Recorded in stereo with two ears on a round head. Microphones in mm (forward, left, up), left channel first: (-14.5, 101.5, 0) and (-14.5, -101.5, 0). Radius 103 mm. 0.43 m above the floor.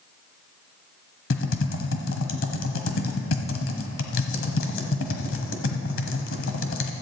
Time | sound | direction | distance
1.3 | typing on a keyboard | 60° left (ahead or behind) | 1.2 m